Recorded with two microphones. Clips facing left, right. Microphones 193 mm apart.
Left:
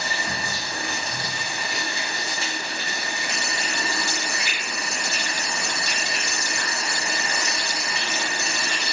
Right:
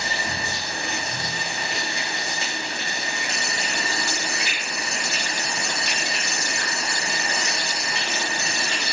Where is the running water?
25° right (ahead or behind), 1.1 m.